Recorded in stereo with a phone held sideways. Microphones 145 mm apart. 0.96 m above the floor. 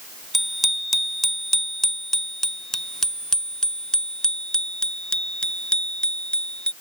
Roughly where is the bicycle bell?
Centre.